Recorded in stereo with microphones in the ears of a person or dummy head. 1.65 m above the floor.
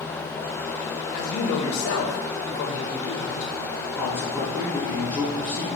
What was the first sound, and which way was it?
A man speaking, 70° left (ahead or behind).